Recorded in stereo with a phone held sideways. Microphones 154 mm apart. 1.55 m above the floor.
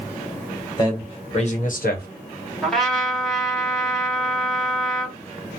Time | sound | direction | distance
0.8 | a man speaking | 30° left (ahead or behind) | 1.7 m
2.6 | a trumpet | 5° left (ahead or behind) | 1.4 m